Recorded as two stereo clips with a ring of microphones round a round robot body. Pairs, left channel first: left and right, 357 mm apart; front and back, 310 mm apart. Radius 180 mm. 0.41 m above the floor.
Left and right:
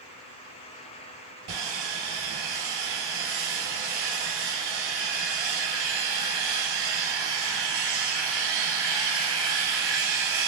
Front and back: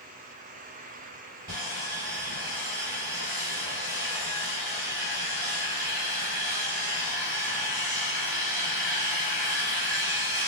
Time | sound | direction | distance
1.5 | sawing | 115° right | 2 m